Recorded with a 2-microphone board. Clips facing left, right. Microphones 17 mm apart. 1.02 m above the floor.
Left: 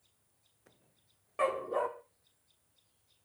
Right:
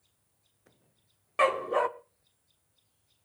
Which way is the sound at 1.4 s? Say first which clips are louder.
Right 6 dB; 60° right (ahead or behind).